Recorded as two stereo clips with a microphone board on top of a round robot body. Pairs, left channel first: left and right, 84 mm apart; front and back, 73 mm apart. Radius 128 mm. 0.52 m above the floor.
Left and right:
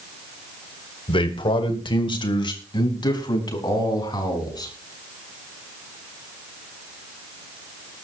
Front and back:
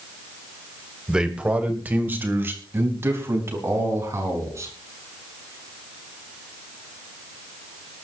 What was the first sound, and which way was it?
A man speaking, 100° left.